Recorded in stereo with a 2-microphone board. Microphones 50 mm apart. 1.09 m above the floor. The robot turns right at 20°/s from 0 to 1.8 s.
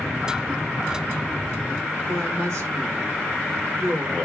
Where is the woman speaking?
65° right (ahead or behind), 1.9 m.